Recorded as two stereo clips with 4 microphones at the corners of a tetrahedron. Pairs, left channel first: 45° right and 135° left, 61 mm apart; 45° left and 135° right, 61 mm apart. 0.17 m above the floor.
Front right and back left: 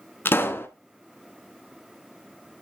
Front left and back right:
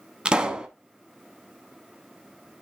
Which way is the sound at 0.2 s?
70° right.